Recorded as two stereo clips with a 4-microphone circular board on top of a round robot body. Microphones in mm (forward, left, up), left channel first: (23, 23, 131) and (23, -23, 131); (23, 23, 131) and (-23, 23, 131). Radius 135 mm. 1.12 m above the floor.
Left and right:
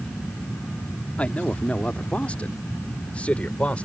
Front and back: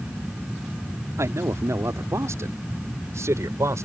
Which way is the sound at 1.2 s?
155° left.